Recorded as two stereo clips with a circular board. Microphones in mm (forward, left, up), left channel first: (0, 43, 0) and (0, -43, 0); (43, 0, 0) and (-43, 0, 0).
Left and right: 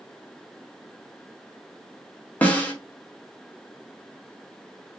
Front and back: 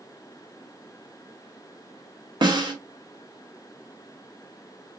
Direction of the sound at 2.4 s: 160° left.